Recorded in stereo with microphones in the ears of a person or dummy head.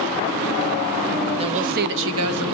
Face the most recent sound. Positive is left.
turn(degrees=-80)